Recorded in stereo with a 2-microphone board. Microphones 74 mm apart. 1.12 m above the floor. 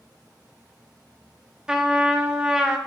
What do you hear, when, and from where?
1.7 s a trumpet: 10° right (ahead or behind), 0.7 m